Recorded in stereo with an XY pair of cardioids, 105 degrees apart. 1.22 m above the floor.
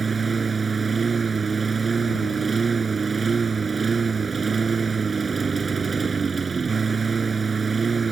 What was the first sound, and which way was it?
A lawn mower, 25° right.